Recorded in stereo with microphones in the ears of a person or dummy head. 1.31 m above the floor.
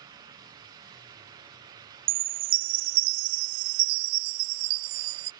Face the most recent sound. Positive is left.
turn(degrees=-55)  # may be behind; listen again after turning